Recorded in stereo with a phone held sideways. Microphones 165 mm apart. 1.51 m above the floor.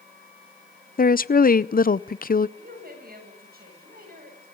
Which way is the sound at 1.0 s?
60° left (ahead or behind).